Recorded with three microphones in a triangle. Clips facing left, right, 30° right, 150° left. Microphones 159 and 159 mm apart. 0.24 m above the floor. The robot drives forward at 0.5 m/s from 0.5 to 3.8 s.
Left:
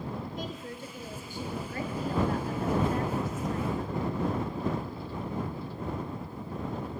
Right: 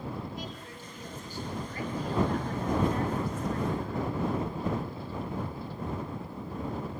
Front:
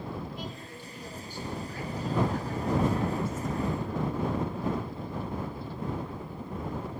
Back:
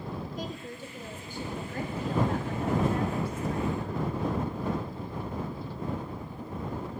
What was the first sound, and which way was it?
A woman speaking, 115° left.